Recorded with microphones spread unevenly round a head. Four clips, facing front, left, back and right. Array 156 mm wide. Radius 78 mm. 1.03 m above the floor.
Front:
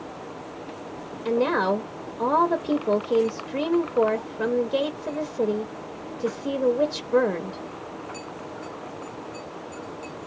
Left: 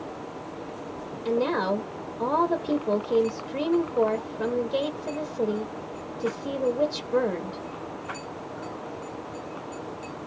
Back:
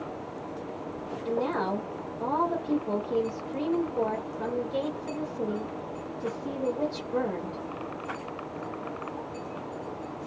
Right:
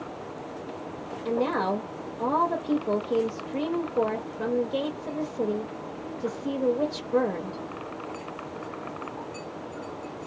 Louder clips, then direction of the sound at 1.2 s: Left 1 dB, front 6 dB; straight ahead.